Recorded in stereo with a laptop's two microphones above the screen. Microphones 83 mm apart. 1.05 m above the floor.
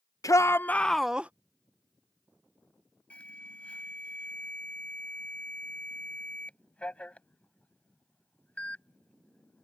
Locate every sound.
0.2 s a shout: 40° left (ahead or behind); by 1.3 s 15° right (ahead or behind)
3.1 s an alarm: 15° left (ahead or behind)